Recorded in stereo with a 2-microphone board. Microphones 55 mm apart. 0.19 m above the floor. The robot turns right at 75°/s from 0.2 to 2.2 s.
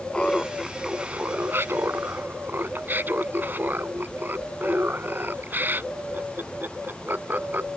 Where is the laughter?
150° left; by 7.7 s 60° right.